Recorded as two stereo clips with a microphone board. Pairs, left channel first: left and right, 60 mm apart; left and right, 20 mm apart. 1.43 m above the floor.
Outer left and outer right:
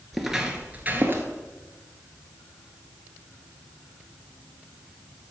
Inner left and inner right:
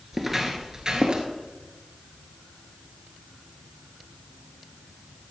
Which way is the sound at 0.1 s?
Centre (ahead or behind).